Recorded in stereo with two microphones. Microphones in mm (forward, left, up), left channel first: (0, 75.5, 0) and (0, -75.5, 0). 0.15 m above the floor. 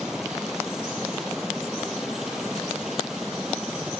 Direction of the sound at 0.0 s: 5° right (ahead or behind).